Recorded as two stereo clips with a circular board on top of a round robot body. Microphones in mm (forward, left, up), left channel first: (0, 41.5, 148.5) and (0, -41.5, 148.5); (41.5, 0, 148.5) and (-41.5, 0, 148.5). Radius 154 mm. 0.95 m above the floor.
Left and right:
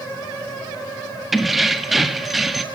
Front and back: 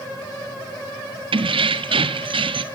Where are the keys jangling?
175° right, 1.5 m.